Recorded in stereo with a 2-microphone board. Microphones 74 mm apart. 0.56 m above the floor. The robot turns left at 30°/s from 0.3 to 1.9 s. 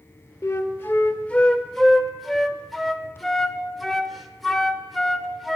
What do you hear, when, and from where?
0.4 s a flute: 45° left (ahead or behind), 0.9 m; by 5.6 s centre (ahead or behind), 0.9 m